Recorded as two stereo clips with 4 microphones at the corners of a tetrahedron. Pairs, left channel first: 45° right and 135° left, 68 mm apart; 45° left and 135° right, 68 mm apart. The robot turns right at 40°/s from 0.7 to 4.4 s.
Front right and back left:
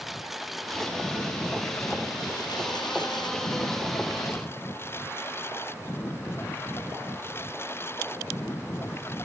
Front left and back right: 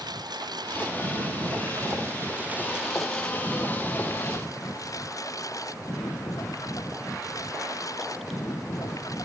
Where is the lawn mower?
140° right; by 9.3 s 10° left.